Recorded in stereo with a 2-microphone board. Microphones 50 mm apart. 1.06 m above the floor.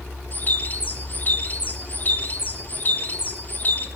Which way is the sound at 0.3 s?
35° left (ahead or behind).